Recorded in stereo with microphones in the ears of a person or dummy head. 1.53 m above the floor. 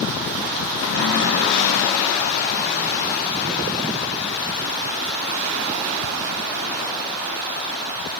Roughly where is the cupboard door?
Left.